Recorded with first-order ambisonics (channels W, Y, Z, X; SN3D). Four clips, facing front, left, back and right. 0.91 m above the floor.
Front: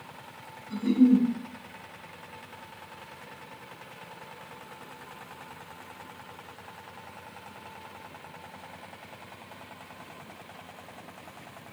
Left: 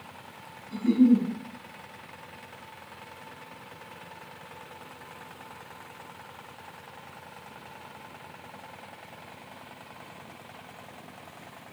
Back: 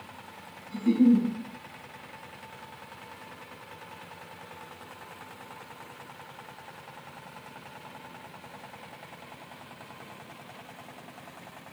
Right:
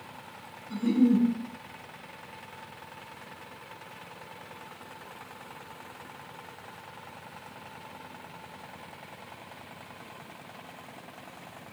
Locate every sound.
0.7 s a giggle: 65° right, 2.5 m